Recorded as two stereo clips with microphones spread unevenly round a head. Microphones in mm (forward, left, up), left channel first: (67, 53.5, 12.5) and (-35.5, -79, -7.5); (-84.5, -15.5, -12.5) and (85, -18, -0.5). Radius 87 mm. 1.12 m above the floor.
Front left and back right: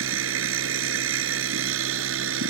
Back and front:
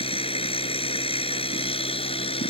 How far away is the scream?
I don't hear a scream.